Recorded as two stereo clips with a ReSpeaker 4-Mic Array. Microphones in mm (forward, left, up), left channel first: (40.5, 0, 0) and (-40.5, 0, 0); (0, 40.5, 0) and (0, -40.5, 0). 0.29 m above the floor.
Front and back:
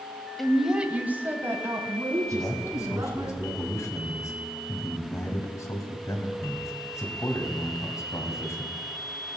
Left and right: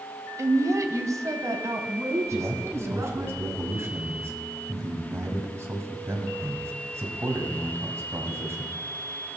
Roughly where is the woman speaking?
Right.